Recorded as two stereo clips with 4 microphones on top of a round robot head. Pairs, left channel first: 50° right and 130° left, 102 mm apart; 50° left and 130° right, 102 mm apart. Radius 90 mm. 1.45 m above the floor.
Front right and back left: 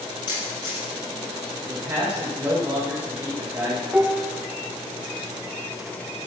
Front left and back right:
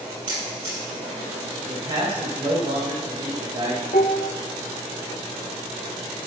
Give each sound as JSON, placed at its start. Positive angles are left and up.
{"t": 0.3, "sound": "a camera shutter", "azimuth_deg": -90, "distance_m": 5.5}
{"t": 1.7, "sound": "a man speaking", "azimuth_deg": -170, "distance_m": 2.0}
{"t": 3.9, "sound": "dishes clattering", "azimuth_deg": 50, "distance_m": 0.7}